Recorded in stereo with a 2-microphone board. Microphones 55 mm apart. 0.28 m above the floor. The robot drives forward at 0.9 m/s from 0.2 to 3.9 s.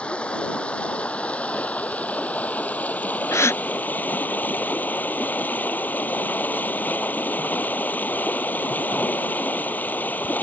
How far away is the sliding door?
No sliding door in this recording.